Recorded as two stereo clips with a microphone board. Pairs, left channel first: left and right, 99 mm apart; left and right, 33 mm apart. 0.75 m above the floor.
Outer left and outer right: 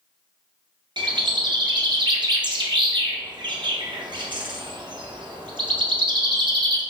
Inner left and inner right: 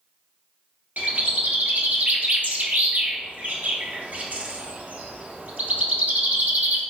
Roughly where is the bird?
Right.